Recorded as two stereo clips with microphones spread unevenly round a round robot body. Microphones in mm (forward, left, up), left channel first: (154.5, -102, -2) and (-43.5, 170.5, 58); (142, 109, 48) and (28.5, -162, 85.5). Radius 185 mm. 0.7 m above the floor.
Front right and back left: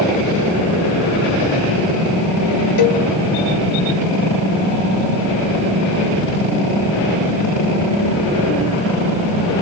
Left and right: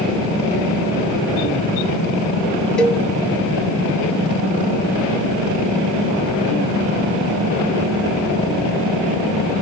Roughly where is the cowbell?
Ahead.